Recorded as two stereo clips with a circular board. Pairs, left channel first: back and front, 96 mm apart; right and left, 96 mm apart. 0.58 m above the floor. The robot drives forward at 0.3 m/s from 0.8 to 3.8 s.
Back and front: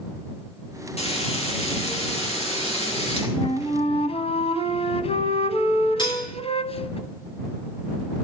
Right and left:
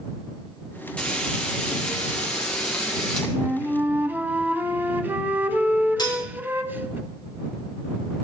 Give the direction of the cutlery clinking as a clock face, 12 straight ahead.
5 o'clock.